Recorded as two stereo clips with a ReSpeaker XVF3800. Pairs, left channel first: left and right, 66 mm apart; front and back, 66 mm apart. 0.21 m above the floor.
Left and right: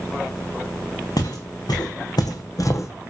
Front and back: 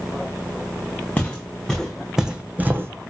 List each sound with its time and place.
1.2 s footsteps: 70° left, 1.0 m; by 3.1 s 140° left, 0.6 m